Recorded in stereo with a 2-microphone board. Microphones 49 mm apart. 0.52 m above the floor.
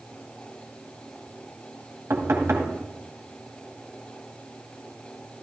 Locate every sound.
2.1 s knocking: 70° right (ahead or behind), 2 m